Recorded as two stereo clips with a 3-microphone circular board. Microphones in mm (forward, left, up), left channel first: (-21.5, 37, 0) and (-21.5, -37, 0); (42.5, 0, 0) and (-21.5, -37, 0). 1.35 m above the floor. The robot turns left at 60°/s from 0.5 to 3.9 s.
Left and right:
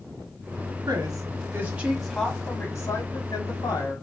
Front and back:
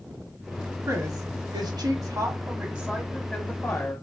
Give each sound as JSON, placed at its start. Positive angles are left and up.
{"t": 0.9, "sound": "a woman speaking", "azimuth_deg": -110, "distance_m": 1.0}